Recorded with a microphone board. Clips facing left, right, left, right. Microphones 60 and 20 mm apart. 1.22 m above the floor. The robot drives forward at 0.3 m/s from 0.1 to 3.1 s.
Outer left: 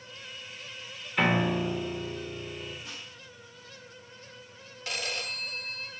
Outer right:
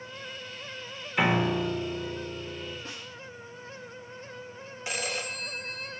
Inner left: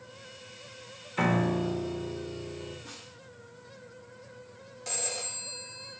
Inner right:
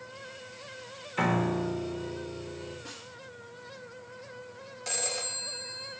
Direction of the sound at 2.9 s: 50° right (ahead or behind).